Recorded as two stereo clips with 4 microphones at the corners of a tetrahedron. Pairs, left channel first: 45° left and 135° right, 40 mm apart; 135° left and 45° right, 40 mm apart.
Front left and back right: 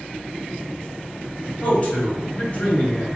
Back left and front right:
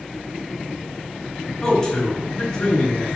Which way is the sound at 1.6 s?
70° left.